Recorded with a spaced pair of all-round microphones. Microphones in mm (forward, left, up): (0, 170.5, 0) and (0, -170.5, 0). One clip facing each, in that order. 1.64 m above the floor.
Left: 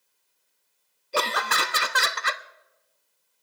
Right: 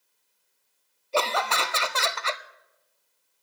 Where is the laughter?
25° left (ahead or behind), 0.7 m.